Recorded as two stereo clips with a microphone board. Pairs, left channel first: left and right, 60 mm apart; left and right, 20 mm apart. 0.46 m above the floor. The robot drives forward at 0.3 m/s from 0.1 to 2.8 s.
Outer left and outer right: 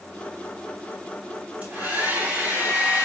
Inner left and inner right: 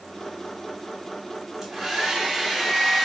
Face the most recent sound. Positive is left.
turn(degrees=-20)  # may be behind; listen again after turning